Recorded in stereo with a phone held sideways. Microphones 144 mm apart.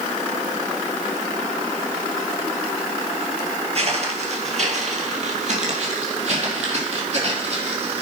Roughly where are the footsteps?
Right.